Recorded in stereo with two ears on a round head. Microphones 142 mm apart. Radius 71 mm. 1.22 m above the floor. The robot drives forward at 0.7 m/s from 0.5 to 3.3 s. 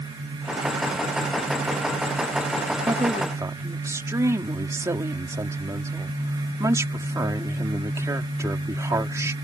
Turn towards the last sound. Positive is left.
turn(degrees=-20)  # may be behind; listen again after turning